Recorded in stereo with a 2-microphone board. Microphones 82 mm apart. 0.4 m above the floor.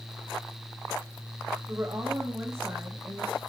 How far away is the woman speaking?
About 2.5 m.